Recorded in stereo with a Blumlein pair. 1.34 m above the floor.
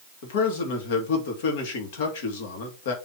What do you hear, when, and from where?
0.2 s a man speaking: 55° left, 3 m